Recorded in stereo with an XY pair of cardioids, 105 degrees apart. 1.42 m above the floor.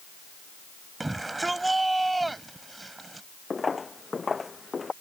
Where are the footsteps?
20° left.